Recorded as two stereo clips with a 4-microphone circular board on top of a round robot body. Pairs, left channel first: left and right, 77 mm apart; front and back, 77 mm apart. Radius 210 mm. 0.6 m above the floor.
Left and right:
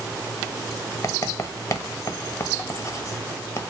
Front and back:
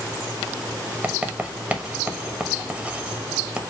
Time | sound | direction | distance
1.0 | writing | 120° left | 1.3 m